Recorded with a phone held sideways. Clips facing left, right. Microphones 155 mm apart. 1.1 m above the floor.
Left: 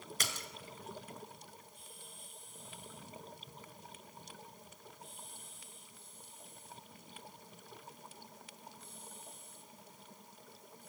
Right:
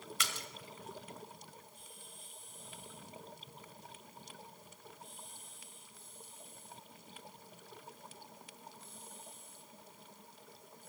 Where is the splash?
40° left (ahead or behind), 1.9 m.